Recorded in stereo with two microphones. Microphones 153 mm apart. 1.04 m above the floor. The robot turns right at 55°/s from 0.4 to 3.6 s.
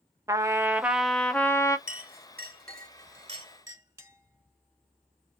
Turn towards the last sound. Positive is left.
turn(degrees=-15)  # may be behind; listen again after turning